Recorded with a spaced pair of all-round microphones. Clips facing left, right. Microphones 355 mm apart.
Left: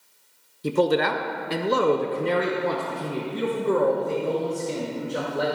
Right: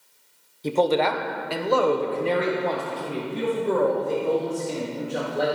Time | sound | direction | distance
0.6 | a man speaking | 20° left (ahead or behind) | 0.7 m